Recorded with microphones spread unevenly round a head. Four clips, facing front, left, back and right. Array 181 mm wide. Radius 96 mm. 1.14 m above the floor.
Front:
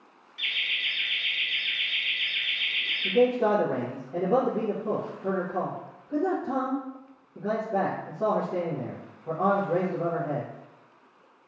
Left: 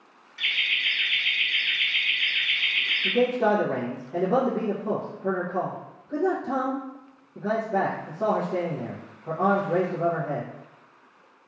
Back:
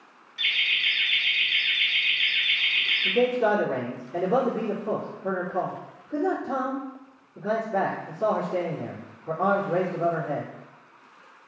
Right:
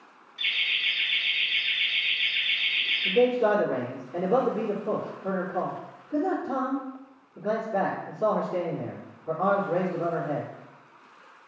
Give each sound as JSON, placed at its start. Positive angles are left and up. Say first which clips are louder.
{"t": 0.4, "sound": "laughter", "louder": "left 2 dB, back 5 dB", "azimuth_deg": 145, "distance_m": 0.7}
{"t": 3.0, "sound": "a man speaking", "louder": "right 1 dB, even", "azimuth_deg": 50, "distance_m": 0.9}